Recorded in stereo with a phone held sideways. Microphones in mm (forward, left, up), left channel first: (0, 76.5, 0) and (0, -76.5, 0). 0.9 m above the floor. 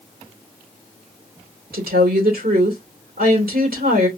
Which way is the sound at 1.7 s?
75° right (ahead or behind).